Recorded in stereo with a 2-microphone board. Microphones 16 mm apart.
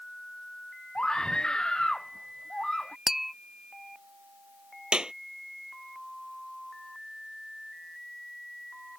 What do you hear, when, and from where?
0.9 s a scream: 50° left (ahead or behind)
3.1 s tapping: 20° right (ahead or behind)
4.9 s a clap: 65° right (ahead or behind)